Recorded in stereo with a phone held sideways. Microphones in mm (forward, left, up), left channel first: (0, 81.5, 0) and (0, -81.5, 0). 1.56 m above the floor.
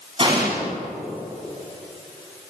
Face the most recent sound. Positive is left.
turn(degrees=-35)  # may be behind; listen again after turning